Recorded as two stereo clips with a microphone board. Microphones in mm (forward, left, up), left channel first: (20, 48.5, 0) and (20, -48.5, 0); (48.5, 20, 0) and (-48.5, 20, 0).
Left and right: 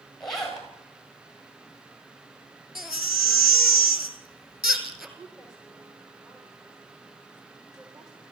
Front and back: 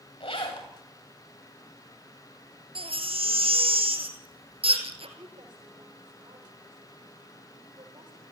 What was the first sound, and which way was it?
A zipper, 5° left.